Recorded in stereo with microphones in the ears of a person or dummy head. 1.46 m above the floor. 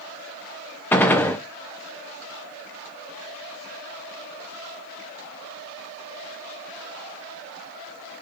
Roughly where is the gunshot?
Centre.